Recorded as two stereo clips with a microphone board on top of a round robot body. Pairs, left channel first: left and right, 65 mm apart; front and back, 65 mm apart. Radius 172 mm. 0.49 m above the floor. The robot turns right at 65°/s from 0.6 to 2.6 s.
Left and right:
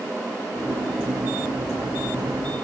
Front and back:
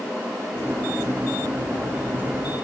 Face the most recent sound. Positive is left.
No sound to turn to.